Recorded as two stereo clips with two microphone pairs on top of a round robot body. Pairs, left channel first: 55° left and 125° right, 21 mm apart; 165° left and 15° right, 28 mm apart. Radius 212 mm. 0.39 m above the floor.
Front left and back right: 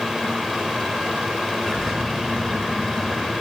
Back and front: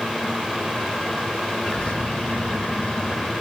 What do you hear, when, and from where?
1.6 s a bird: 120° left, 6 m